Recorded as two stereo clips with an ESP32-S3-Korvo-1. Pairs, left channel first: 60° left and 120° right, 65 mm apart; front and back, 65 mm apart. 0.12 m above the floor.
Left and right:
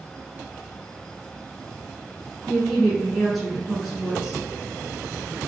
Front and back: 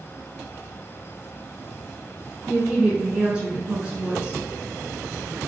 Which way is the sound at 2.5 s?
140° left.